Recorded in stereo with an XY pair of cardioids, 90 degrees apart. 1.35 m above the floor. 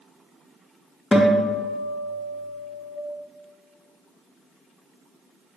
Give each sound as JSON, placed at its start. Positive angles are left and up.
{"t": 1.1, "sound": "a guitar", "azimuth_deg": 30, "distance_m": 0.8}